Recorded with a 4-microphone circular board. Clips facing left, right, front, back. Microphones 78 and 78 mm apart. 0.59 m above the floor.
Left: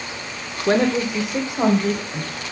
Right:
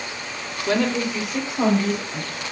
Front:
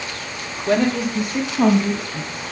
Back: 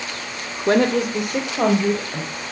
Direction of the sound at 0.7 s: 140° left.